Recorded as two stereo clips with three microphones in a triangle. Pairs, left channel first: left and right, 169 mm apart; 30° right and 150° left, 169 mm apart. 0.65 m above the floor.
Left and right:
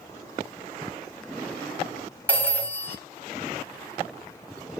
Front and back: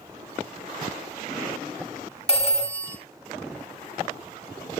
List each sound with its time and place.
2.3 s a phone ringing: 10° left, 0.8 m